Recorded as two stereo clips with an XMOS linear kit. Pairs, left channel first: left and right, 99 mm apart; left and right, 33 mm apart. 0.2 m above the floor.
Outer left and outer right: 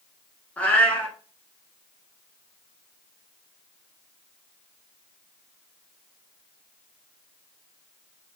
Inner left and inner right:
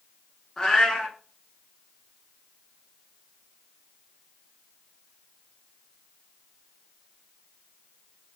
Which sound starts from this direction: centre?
A cat meowing, at 0.6 s.